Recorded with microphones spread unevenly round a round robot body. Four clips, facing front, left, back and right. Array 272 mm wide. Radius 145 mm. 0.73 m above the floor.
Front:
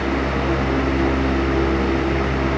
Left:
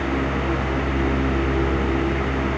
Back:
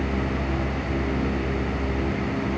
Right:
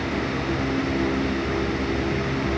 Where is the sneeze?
No sneeze in this recording.